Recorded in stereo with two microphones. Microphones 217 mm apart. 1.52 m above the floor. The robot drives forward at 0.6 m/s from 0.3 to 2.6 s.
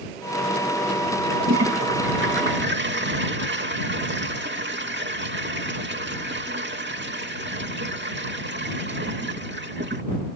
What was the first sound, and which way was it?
A toilet flushing, 70° right (ahead or behind).